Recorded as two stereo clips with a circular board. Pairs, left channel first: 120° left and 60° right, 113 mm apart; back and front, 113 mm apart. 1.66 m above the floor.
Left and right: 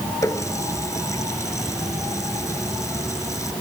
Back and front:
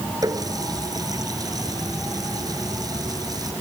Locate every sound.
0.2 s a running tap: 55° left